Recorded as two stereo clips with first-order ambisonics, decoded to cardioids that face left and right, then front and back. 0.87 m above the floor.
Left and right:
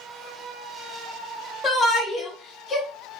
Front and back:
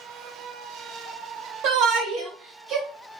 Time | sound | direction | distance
1.6 | a shout | 175° left | 1.1 m